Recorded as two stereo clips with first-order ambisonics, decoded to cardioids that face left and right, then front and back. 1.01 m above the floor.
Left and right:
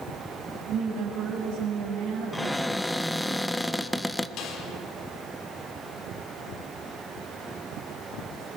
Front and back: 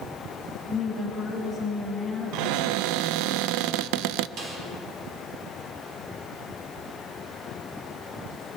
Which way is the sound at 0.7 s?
110° right.